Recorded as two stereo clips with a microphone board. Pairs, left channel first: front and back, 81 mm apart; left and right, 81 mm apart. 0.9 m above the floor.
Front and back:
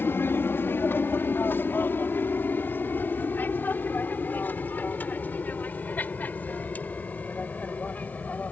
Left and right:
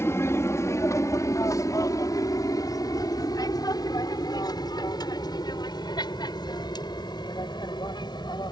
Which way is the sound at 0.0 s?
50° left.